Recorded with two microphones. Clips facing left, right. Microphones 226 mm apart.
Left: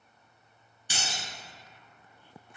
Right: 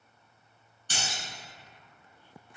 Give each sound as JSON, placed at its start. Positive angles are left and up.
{"t": 0.9, "sound": "breaking glass", "side_deg": 10, "distance_m": 1.1}